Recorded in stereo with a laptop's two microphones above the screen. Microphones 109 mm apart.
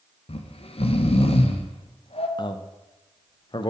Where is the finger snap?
No finger snap in this recording.